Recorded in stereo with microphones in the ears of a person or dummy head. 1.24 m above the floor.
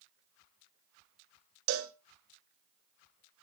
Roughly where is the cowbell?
Right.